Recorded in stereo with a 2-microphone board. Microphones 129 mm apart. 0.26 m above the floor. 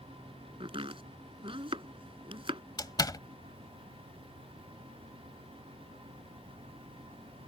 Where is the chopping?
45° right (ahead or behind).